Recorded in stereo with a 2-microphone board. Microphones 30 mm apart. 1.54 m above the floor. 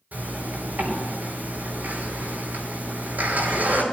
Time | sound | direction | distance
0.1 | a zipper | 75° right (ahead or behind) | 6.5 m